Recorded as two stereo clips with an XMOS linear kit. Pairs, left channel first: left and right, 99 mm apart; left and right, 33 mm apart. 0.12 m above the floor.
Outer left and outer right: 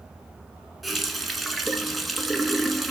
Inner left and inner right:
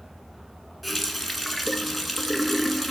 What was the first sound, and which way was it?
A running tap, centre (ahead or behind).